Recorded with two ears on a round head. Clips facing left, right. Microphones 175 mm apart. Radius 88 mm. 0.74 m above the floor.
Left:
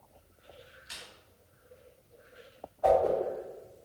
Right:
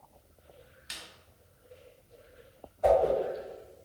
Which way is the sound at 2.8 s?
30° right (ahead or behind).